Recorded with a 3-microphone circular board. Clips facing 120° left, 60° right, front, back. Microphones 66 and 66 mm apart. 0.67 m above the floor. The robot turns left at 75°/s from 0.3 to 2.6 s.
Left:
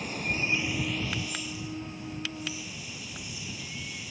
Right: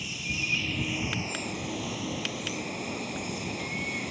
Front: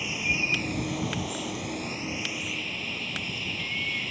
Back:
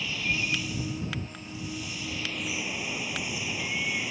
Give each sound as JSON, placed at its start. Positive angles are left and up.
{"t": 0.0, "sound": "running water", "azimuth_deg": 70}